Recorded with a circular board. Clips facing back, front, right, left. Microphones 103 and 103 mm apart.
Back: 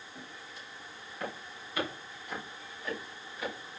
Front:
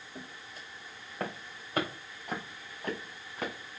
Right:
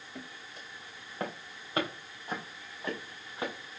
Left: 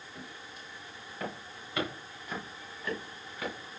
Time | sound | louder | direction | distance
0.1 | footsteps | front 2 dB, right 1 dB | 50° right | 5.5 m